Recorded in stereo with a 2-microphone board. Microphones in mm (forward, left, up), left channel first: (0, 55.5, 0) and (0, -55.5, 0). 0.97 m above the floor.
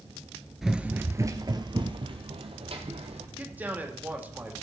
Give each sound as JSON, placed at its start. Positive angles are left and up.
{"t": 0.6, "sound": "running footsteps", "side_deg": -5, "distance_m": 1.0}
{"t": 3.4, "sound": "a man speaking", "side_deg": -15, "distance_m": 2.0}